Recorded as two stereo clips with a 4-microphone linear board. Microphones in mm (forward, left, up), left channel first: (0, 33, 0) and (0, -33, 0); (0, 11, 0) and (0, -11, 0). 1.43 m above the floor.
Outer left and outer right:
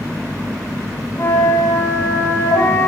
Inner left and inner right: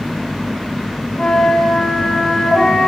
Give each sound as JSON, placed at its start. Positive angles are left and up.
{"t": 1.2, "sound": "a flute", "side_deg": 50, "distance_m": 4.0}